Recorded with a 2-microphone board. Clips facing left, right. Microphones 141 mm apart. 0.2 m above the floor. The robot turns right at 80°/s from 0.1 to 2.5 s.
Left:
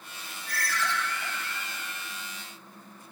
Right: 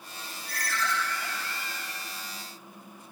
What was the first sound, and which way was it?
A ringtone, 175° right.